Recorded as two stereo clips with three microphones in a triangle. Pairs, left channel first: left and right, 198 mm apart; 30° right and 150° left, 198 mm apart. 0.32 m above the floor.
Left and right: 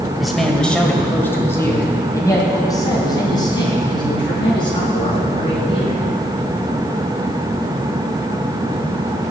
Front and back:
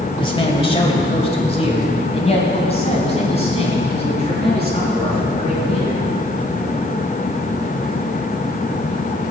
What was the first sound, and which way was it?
A man speaking, straight ahead.